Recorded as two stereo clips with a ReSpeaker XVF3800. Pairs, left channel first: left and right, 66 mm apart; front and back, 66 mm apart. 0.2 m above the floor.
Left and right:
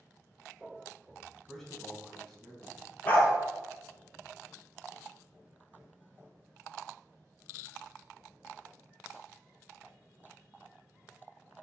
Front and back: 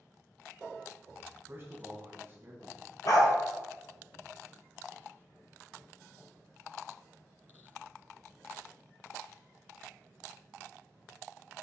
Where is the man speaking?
170° left, 1.4 m.